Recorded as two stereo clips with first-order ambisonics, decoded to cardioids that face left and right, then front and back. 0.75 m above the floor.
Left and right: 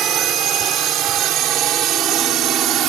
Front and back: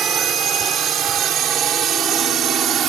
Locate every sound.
0.0 s a drone: 130° right